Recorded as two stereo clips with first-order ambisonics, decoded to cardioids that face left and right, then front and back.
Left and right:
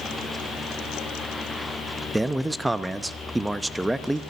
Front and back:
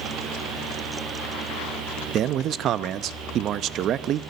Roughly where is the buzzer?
I don't hear a buzzer.